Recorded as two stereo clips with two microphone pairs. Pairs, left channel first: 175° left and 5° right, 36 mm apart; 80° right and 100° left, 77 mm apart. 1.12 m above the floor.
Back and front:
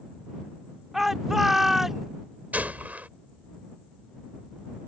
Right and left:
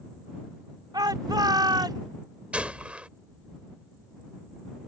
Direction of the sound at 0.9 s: 75° left.